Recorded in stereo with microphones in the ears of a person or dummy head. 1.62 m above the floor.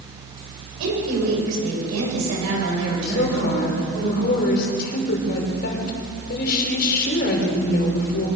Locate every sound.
0.8 s a woman speaking: 75° right (ahead or behind), 8.5 m; by 4.0 s 90° right, 9.5 m
3.0 s a woman speaking: 55° left (ahead or behind), 5 m